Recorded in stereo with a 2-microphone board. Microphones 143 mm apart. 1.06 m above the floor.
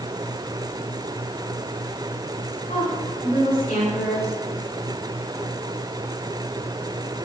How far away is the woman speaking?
About 6.5 m.